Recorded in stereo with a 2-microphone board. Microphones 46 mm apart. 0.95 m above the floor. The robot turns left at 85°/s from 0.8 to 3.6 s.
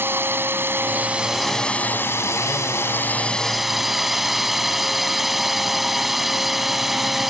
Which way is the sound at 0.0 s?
130° right.